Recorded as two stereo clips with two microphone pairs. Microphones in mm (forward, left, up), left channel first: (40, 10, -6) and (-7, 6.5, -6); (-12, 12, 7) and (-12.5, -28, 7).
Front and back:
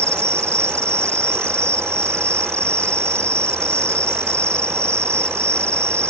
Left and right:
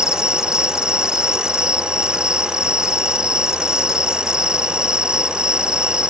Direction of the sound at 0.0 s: 160° right.